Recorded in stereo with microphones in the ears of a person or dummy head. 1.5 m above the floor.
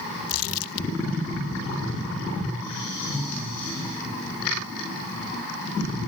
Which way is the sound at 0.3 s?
85° left.